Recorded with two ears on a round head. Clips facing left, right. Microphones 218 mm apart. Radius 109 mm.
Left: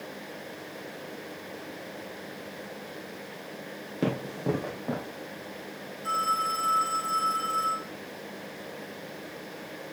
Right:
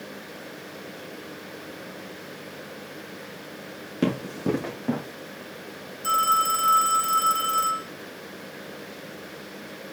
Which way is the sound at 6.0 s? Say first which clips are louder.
Right 5 dB; 55° right (ahead or behind).